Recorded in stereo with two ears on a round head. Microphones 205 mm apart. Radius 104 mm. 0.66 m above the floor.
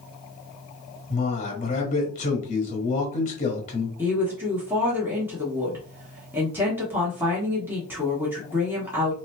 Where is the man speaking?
30° left (ahead or behind), 1.2 m.